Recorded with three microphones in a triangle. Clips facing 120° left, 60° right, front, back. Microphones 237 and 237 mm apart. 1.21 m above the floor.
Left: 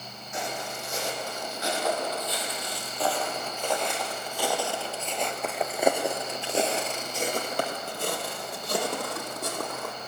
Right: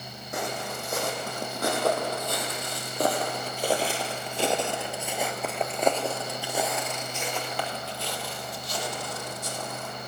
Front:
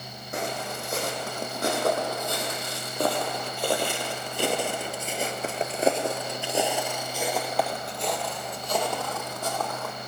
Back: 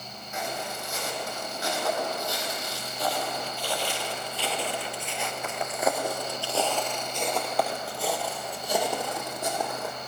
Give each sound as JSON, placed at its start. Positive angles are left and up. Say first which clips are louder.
{"t": 0.3, "sound": "footsteps", "louder": "right 2 dB, front 3 dB", "azimuth_deg": -35, "distance_m": 4.0}